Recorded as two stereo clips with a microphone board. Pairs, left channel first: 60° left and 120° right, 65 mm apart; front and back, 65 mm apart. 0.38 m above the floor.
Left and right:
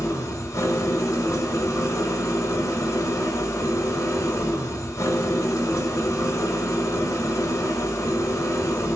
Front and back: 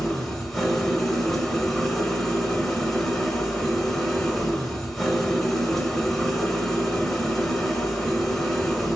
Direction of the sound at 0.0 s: 85° left.